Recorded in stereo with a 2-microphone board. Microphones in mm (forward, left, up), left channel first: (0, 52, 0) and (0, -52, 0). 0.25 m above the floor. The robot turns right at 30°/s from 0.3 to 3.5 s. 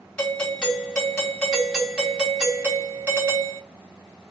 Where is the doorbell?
10° left (ahead or behind), 1.9 m; by 3.6 s 20° right (ahead or behind), 1.9 m.